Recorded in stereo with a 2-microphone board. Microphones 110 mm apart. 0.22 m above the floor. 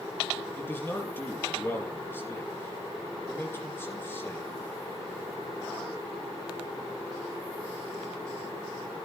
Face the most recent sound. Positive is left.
turn(degrees=20)  # may be behind; listen again after turning